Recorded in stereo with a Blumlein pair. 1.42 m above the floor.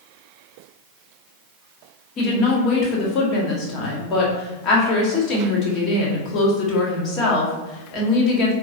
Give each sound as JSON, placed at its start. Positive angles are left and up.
{"t": 2.2, "sound": "a woman speaking", "azimuth_deg": 35, "distance_m": 1.0}